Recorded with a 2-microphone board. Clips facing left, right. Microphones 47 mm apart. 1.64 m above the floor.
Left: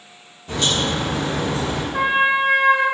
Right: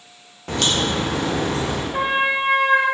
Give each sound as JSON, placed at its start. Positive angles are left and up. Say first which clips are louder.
{"t": 0.5, "sound": "a crack", "louder": "even", "side_deg": -65, "distance_m": 0.9}
{"t": 1.9, "sound": "a trumpet", "louder": "left 3 dB", "side_deg": -45, "distance_m": 1.7}